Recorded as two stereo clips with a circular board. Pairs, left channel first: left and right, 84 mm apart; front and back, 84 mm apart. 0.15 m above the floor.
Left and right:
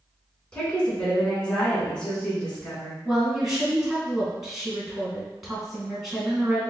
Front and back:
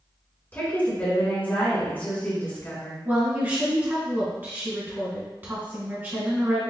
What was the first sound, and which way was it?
A woman speaking, 30° left.